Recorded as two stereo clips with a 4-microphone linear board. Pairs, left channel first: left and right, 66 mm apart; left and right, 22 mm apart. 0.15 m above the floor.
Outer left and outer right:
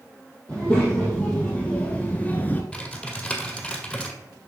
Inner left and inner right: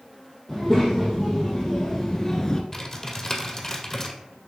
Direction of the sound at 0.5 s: 15° left (ahead or behind).